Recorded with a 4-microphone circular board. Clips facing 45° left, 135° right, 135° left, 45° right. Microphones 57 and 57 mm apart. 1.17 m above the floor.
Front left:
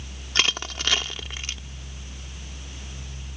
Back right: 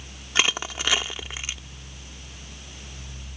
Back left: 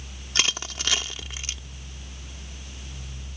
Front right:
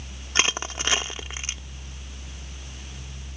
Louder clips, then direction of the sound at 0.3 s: Back right 1 dB, front right 3 dB; 70° right.